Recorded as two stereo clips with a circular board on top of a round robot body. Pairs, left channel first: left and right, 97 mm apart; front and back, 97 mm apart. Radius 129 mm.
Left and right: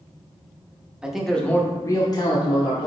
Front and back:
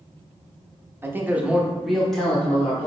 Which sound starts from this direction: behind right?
A man speaking, at 1.0 s.